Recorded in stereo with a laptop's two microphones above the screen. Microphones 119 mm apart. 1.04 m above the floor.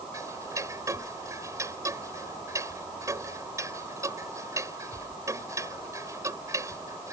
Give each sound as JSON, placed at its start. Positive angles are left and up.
{"t": 0.1, "sound": "ticking", "side_deg": -25}